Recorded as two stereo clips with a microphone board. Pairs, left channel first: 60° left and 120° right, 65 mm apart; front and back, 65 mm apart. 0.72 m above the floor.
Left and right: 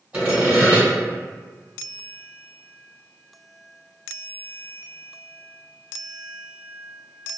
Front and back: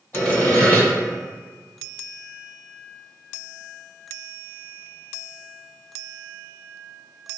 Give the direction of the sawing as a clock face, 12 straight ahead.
2 o'clock.